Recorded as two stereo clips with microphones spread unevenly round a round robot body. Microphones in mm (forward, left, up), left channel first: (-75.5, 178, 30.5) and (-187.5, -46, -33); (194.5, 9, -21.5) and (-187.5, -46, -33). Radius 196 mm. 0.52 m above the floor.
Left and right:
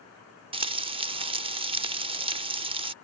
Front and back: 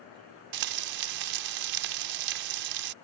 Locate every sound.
0.5 s frying: 170° right